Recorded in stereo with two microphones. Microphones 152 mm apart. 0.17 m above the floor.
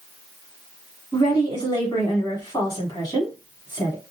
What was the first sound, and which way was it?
A woman speaking, 30° left (ahead or behind).